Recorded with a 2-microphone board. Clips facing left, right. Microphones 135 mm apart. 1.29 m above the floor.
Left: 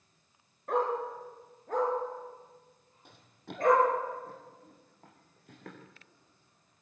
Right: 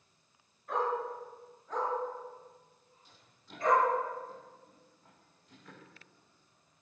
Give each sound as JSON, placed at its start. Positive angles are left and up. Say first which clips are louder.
{"t": 0.7, "sound": "a dog barking", "louder": "left 3 dB", "side_deg": 55, "distance_m": 6.0}
{"t": 3.0, "sound": "running footsteps", "louder": "left 10 dB", "side_deg": 65, "distance_m": 2.5}